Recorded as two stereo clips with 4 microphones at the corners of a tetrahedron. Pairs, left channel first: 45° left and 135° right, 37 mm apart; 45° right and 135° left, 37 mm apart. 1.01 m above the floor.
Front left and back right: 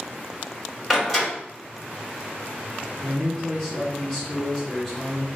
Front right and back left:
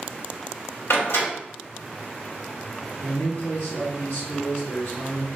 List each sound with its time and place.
0.9 s a door slam: 50° right, 1.6 m
3.0 s a man speaking: 35° right, 1.1 m